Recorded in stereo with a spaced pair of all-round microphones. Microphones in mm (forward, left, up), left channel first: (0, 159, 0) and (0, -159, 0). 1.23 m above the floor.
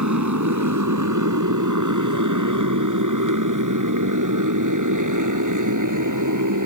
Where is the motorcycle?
70° right (ahead or behind); by 6.7 s 80° right.